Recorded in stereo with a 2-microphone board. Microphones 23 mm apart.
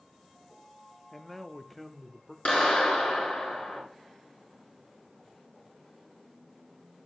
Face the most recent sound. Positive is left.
turn(degrees=75)  # may be behind; listen again after turning